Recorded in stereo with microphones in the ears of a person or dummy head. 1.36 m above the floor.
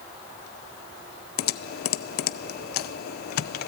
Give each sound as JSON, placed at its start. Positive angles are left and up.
{"t": 1.4, "sound": "typing on a keyboard", "side_deg": 55, "distance_m": 0.7}